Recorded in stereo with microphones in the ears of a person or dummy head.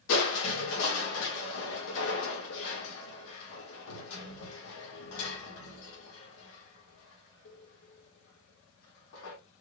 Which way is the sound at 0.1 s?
75° left (ahead or behind).